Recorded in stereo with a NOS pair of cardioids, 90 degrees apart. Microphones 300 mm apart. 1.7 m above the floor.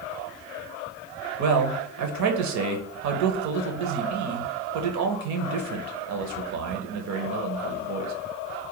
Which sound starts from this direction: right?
A man speaking, at 1.4 s.